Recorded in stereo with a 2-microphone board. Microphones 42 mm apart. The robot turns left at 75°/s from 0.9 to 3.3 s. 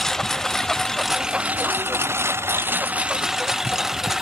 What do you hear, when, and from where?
0.0 s a lawn mower: 10° left; by 4.2 s 170° right